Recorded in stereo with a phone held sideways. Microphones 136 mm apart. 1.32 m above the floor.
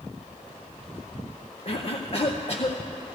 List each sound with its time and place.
1.6 s a cough: 50° left (ahead or behind), 0.7 m